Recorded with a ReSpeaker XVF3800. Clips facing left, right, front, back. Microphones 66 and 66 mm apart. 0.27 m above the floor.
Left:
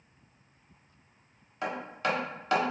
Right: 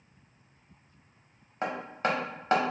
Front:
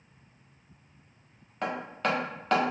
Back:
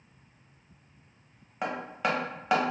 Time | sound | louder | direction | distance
1.6 | hammering | right 1 dB, even | 110° right | 1.0 m